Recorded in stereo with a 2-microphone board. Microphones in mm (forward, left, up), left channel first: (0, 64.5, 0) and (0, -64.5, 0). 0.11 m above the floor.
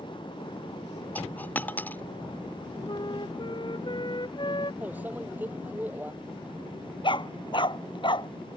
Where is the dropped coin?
15° left (ahead or behind).